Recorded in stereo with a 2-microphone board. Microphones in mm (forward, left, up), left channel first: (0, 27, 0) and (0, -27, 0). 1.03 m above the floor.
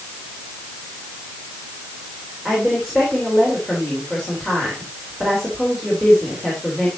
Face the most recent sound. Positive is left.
turn(degrees=0)  # may be behind; listen again after turning